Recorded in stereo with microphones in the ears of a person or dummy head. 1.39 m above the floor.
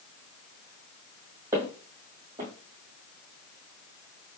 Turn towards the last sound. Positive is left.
turn(degrees=-15)  # may be behind; listen again after turning